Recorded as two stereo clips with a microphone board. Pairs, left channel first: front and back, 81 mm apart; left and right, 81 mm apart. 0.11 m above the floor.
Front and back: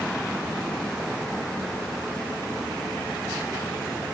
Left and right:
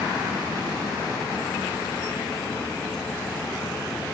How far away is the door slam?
No door slam in this recording.